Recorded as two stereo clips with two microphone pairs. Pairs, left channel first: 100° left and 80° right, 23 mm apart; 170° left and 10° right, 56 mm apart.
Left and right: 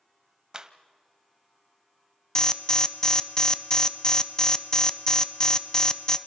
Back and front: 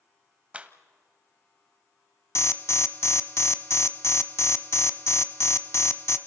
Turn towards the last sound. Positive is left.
turn(degrees=150)